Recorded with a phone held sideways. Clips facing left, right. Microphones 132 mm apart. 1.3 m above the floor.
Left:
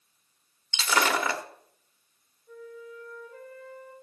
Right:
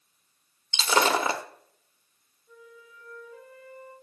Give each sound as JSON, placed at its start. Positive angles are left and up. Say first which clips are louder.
{"t": 0.7, "sound": "breaking glass", "louder": "right 3 dB", "side_deg": -25, "distance_m": 0.9}
{"t": 2.5, "sound": "a flute", "louder": "left 8 dB", "side_deg": 50, "distance_m": 3.5}